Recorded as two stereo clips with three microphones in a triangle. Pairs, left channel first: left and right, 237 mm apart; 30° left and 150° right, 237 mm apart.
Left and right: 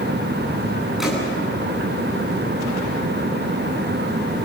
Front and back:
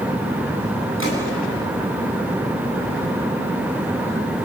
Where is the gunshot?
Straight ahead, 10 m.